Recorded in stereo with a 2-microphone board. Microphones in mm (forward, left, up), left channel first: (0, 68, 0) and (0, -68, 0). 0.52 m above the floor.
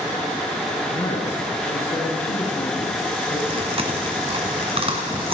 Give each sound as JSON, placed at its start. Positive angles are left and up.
{"t": 0.9, "sound": "a woman speaking", "side_deg": 60, "distance_m": 3.5}
{"t": 3.5, "sound": "chewing", "side_deg": -45, "distance_m": 2.5}